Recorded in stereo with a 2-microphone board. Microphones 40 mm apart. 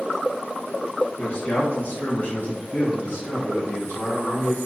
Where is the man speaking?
40° left (ahead or behind), 0.6 m; by 4.6 s 65° left (ahead or behind), 2 m.